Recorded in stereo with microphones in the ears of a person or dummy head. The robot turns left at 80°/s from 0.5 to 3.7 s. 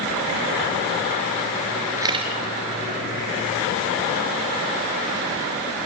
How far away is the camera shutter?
About 3.5 m.